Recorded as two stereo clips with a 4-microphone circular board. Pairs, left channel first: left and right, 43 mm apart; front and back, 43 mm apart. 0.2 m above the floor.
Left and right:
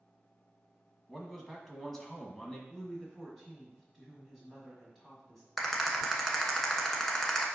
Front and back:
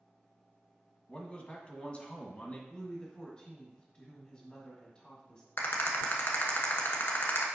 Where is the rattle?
5° left, 1.1 m.